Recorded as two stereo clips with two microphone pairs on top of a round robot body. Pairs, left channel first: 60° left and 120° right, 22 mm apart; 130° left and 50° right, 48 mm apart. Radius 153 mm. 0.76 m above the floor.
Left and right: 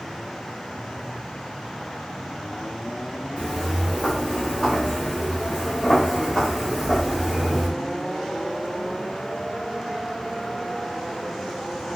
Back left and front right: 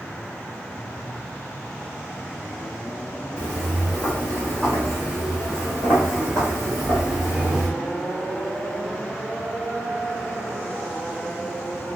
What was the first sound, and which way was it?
Footsteps, 55° left.